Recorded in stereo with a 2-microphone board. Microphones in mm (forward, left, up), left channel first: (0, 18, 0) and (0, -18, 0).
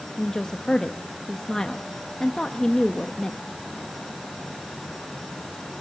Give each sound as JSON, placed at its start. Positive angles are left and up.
{"t": 0.2, "sound": "a woman speaking", "side_deg": 15, "distance_m": 1.0}